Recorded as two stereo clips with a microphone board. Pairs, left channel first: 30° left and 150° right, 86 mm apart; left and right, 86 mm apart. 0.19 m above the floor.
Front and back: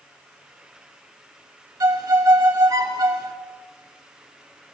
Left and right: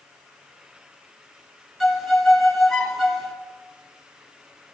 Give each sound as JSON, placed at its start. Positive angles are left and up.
{"t": 1.8, "sound": "a violin", "azimuth_deg": 180, "distance_m": 2.5}